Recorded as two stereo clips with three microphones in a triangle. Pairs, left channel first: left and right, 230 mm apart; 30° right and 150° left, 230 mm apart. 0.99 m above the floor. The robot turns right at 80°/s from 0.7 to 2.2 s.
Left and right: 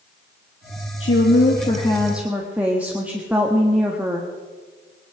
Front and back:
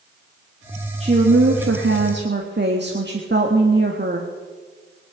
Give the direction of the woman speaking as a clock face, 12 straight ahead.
9 o'clock.